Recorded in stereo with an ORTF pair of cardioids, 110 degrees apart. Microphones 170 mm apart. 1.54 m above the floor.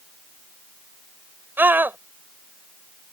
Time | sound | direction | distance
1.6 | a scream | 10° right | ?